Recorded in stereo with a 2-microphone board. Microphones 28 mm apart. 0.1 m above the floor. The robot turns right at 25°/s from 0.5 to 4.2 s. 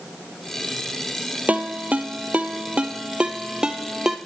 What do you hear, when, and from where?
1.5 s a ringtone: 65° right (ahead or behind), 1.1 m; by 4.2 s 15° right (ahead or behind), 1.1 m